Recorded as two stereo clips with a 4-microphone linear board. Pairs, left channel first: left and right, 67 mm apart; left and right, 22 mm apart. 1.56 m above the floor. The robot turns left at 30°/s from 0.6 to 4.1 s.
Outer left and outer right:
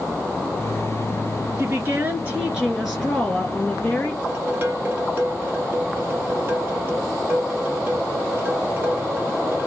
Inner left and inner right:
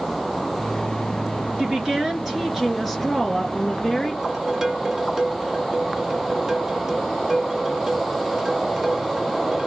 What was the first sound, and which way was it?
A woman speaking, 135° right.